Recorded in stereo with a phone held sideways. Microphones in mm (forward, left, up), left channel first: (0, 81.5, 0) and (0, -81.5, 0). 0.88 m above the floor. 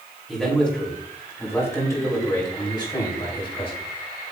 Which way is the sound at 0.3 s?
5° left (ahead or behind).